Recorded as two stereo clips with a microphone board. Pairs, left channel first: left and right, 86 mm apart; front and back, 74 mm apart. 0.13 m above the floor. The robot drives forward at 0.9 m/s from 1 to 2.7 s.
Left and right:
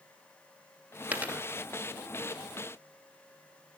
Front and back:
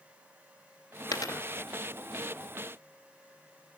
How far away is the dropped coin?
About 0.8 m.